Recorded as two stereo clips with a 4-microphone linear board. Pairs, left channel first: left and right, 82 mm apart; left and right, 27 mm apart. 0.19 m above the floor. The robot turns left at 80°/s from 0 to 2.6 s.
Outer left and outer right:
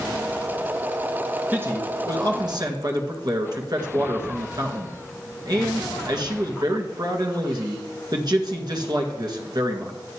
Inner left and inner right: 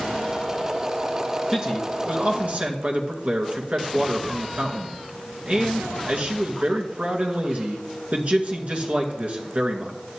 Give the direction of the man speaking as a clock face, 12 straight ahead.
1 o'clock.